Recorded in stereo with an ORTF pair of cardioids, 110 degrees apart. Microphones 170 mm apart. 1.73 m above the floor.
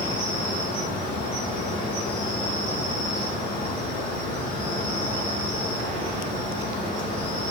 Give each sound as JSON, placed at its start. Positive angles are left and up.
{"t": 0.0, "sound": "an insect", "azimuth_deg": 55, "distance_m": 6.0}